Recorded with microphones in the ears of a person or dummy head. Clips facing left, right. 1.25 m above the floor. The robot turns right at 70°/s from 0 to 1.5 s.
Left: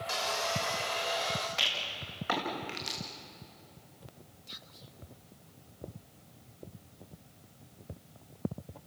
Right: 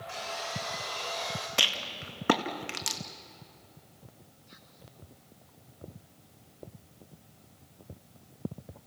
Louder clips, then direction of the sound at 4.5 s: Left 1 dB; 45° left (ahead or behind).